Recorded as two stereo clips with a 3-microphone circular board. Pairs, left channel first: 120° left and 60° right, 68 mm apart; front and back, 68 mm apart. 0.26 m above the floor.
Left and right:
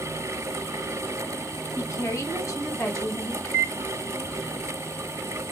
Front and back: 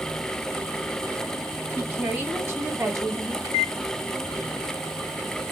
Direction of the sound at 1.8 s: 135° left.